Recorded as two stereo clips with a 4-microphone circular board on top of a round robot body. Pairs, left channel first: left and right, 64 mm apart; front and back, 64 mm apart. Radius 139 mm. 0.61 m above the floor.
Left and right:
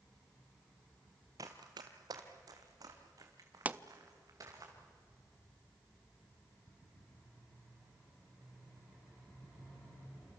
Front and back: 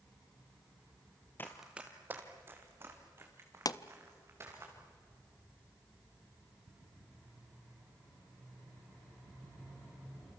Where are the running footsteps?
55° right, 0.6 m; by 4.7 s 125° right, 4.5 m.